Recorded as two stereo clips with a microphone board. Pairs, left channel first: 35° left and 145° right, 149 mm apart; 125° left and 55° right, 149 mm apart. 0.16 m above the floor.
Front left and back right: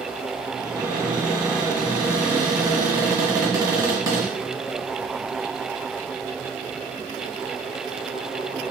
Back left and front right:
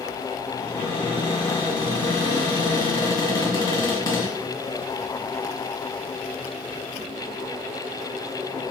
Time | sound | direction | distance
0.6 | a cupboard door | 170° left | 1.9 m